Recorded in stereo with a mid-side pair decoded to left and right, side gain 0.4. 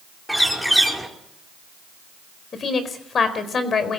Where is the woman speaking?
50° left, 4.5 m.